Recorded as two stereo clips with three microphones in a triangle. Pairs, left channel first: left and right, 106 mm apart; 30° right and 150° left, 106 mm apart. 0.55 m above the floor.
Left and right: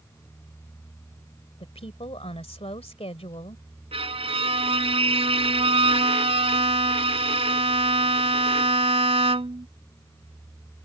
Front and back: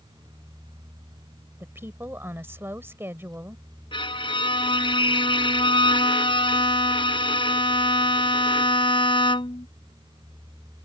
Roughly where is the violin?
Ahead right.